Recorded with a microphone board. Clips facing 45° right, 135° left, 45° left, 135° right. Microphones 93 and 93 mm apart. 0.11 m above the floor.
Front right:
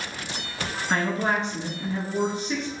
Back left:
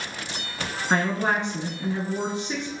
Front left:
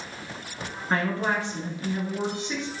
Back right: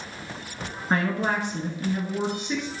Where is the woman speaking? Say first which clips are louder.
Back left 1 dB, back right 1 dB; 170° left, 1.3 m.